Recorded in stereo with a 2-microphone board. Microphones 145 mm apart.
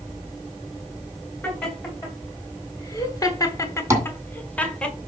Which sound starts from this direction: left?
Laughter, at 1.4 s.